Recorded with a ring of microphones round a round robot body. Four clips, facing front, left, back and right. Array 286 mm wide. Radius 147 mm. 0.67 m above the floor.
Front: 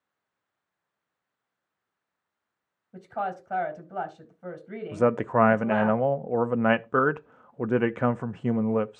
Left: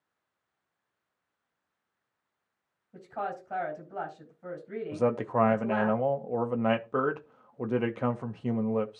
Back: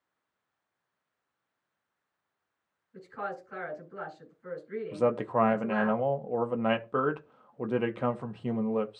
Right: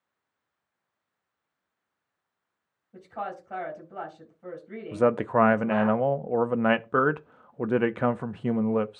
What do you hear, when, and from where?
2.9 s a woman speaking: straight ahead, 4 m
4.9 s a man speaking: 35° right, 0.5 m